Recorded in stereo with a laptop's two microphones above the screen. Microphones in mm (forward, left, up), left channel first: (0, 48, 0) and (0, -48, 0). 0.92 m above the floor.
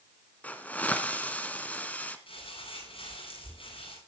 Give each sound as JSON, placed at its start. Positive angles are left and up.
{"t": 0.4, "sound": "a hiss", "side_deg": 15, "distance_m": 1.7}
{"t": 2.3, "sound": "crumpling", "side_deg": 75, "distance_m": 8.5}